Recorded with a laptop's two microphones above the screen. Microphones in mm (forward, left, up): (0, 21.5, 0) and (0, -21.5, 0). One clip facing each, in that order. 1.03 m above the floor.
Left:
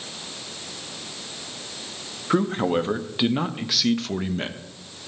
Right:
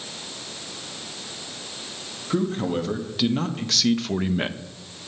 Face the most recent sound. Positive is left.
turn(degrees=-25)  # may be behind; listen again after turning